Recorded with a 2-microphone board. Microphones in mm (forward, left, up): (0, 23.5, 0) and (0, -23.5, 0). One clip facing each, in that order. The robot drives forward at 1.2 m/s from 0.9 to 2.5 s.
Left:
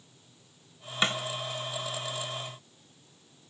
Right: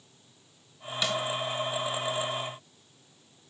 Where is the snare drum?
35° left (ahead or behind), 1.8 m.